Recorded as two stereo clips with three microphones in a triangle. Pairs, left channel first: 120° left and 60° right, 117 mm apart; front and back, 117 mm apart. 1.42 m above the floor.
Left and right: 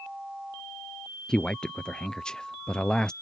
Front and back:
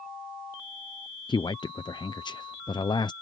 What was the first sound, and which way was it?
A man speaking, 40° left.